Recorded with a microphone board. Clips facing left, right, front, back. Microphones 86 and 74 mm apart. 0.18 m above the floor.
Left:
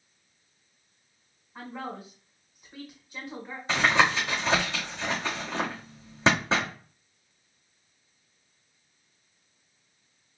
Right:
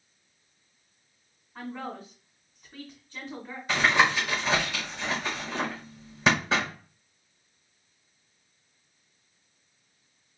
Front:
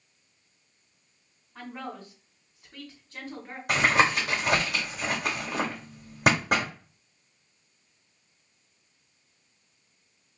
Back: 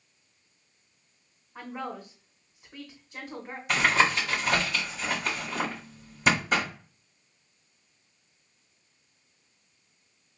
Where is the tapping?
25° left, 2.5 m.